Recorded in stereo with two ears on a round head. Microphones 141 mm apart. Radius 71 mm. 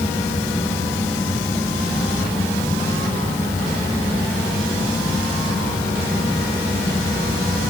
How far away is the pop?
I don't hear a pop.